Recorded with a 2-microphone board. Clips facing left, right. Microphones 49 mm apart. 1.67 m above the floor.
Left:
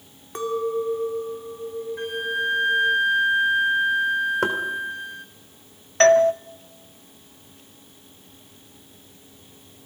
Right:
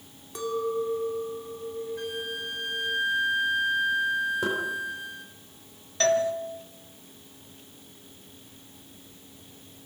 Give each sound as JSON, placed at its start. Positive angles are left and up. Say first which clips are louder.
{"t": 0.3, "sound": "a clink", "louder": "left 4 dB", "side_deg": 40, "distance_m": 2.5}
{"t": 2.0, "sound": "a flute", "louder": "left 8 dB", "side_deg": 35, "distance_m": 1.2}
{"t": 4.4, "sound": "knocking", "louder": "left 5 dB", "side_deg": 65, "distance_m": 3.5}
{"t": 6.0, "sound": "a doorbell", "louder": "left 9 dB", "side_deg": 50, "distance_m": 0.9}